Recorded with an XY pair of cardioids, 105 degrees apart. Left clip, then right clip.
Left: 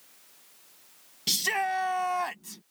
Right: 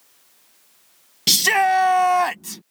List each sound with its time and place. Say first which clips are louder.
1.3 s a shout: right 11 dB; 60° right